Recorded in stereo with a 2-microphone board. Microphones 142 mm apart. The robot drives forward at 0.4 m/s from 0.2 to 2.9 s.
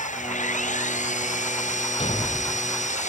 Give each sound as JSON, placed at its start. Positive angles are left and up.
{"t": 0.0, "sound": "an engine running", "side_deg": 60}
{"t": 2.0, "sound": "a thud", "side_deg": 45}